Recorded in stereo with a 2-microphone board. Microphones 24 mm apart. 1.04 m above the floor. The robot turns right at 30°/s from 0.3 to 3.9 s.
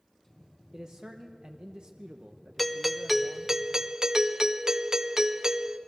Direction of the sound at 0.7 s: 140° right.